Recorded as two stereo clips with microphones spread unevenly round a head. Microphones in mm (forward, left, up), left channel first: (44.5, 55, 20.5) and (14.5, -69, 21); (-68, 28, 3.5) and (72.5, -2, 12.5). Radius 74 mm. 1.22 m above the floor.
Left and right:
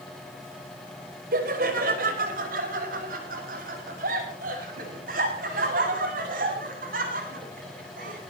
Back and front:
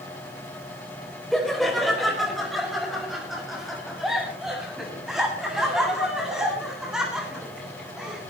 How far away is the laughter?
About 5 m.